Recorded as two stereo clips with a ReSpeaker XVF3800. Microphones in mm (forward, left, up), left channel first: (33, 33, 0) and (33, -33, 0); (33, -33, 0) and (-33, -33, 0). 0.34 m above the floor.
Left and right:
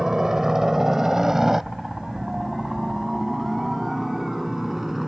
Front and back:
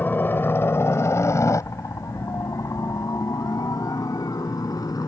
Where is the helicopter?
15° right; by 5.1 s 5° right.